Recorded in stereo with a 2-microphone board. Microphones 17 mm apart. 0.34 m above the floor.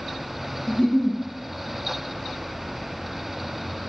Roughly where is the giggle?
Left.